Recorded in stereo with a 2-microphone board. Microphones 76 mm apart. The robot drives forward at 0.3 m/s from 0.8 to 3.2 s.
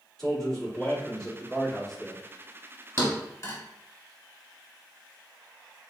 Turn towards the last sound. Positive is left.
turn(degrees=40)  # may be behind; listen again after turning